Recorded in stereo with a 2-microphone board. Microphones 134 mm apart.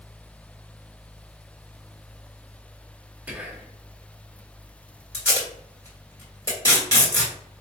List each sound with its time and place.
3.3 s whispering: 10° right (ahead or behind), 0.6 m
5.1 s tape being pulled: 25° left (ahead or behind), 1.4 m